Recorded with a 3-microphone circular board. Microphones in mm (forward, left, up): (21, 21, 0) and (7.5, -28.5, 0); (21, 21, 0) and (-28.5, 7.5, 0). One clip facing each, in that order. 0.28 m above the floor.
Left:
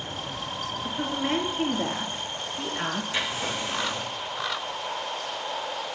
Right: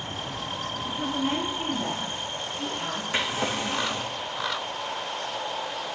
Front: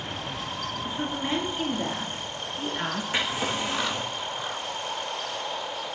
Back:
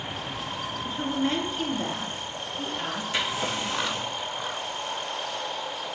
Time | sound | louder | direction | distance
0.8 | a woman speaking | even, back 3 dB | 100° left | 3.5 m
3.1 | a drawer | right 2 dB, even | 50° right | 4 m